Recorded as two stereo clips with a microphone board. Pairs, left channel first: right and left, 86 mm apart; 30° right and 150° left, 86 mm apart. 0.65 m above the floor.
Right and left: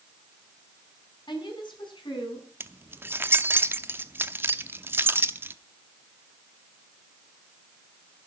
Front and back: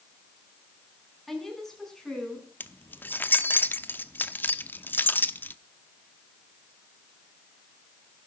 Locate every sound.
1.3 s a woman speaking: 120° right, 5.5 m; by 2.5 s 110° right, 6.5 m
2.6 s keys jangling: 30° left, 0.7 m